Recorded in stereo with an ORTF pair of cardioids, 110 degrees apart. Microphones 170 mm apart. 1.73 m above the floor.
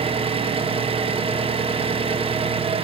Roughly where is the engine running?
Ahead right.